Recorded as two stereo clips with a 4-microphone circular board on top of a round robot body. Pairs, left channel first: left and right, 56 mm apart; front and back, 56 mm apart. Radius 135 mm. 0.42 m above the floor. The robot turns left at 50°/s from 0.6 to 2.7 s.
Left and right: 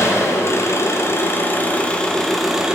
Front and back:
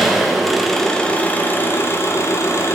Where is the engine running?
90° left, 1.3 m; by 2.8 s 15° right, 1.3 m.